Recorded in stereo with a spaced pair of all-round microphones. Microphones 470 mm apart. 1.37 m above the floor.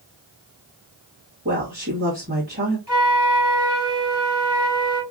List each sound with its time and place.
1.4 s a woman speaking: 30° right (ahead or behind), 1.9 m
2.9 s a flute: 60° left (ahead or behind), 2.5 m